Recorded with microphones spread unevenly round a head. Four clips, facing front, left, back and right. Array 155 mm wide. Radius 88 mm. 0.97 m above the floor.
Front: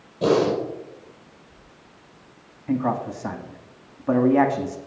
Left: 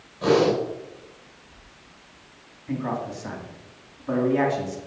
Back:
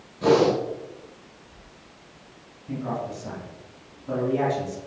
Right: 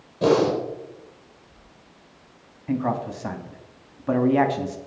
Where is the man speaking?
20° right, 2.5 m.